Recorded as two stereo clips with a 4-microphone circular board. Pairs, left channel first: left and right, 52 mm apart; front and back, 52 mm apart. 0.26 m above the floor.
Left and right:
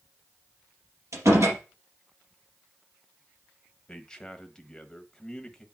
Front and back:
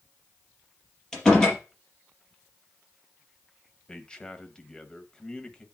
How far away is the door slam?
About 4 m.